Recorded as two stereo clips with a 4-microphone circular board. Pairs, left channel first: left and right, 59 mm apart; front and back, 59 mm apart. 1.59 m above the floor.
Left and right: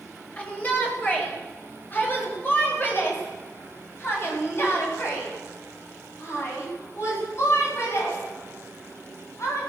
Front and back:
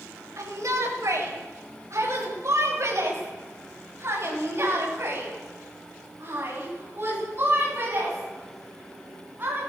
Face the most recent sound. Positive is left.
turn(degrees=125)